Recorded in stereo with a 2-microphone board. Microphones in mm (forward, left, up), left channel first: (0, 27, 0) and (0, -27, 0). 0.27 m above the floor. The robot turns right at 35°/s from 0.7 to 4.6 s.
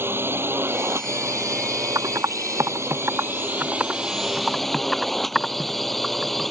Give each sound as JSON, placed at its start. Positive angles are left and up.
{"t": 0.0, "sound": "a drone", "azimuth_deg": -130}
{"t": 1.9, "sound": "typing on a keyboard", "side_deg": -85}